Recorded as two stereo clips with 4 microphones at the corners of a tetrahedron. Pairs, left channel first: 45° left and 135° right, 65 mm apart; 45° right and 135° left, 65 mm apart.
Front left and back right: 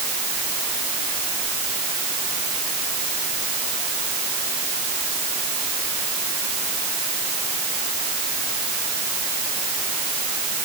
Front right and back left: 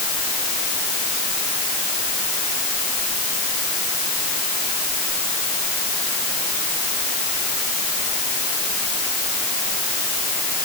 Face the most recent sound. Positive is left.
No sound to turn to.